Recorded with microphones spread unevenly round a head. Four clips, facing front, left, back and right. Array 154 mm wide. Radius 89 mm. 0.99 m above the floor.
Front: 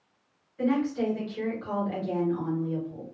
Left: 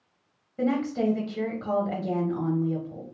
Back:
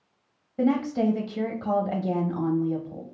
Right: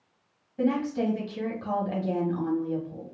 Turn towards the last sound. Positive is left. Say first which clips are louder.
# even, back 3 dB
turn(degrees=175)